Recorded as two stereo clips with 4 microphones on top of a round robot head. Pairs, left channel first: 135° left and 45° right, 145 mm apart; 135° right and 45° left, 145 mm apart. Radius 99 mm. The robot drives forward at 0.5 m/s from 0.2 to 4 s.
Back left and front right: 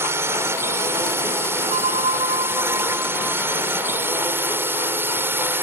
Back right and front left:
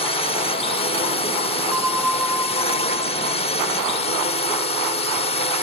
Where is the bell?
35° right; by 3.8 s 150° right.